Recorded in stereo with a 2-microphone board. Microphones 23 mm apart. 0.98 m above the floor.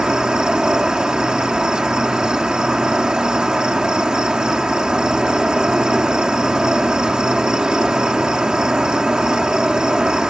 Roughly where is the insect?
Right.